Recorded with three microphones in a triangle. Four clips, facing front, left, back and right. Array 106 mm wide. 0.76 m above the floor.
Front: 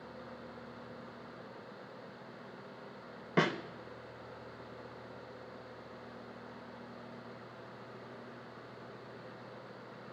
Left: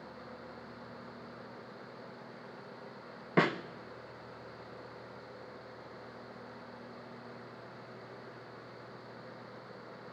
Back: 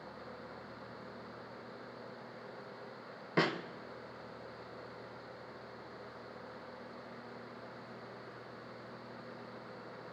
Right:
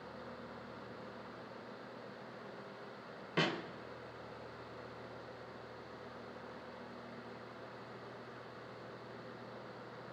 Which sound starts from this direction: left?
A snare drum, at 3.4 s.